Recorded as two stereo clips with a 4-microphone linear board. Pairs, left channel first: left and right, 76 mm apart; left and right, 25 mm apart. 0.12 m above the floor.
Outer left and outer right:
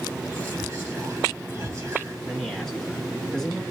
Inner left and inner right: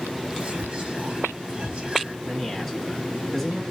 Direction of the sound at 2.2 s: 5° left (ahead or behind).